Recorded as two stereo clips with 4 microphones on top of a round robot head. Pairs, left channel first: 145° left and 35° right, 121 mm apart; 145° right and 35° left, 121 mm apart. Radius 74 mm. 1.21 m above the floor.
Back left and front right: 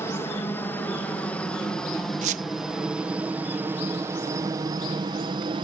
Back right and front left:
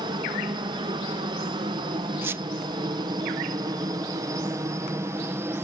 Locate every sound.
0.0 s a helicopter: 80° left; by 5.6 s 25° right
2.2 s a squeak: 35° right